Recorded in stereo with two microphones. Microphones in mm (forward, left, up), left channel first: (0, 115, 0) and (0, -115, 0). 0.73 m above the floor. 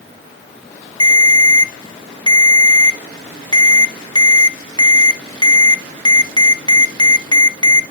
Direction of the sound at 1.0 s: 20° left (ahead or behind).